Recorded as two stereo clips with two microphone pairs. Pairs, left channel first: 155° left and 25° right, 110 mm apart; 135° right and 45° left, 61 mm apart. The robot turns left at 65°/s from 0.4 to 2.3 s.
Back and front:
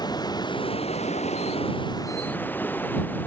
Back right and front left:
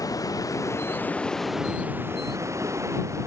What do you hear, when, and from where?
0.0 s running water: 155° right; by 3.3 s 80° left